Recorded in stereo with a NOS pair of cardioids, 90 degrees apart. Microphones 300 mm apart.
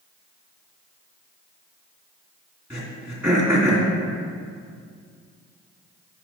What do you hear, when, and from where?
2.7 s throat clearing: 10° right, 2.5 m